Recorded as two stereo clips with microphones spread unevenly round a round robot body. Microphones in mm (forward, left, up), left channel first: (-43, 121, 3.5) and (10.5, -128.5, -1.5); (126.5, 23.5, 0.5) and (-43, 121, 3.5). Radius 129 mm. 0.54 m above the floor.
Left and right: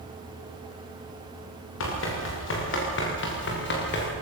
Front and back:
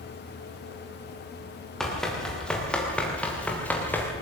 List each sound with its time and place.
1.8 s running footsteps: 60° left, 7.5 m; by 4.1 s 50° left, 6 m